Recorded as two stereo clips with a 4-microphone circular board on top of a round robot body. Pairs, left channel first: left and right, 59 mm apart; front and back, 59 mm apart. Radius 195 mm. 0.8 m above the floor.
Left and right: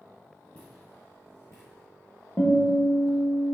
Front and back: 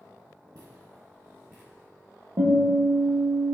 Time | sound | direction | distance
0.6 | footsteps | 155° left | 1.4 m
2.4 | a guitar | 155° left | 1.2 m